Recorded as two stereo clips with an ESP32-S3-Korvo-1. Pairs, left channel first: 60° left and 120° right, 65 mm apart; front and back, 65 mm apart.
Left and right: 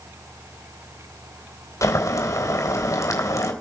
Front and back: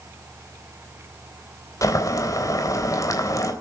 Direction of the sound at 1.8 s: 25° left.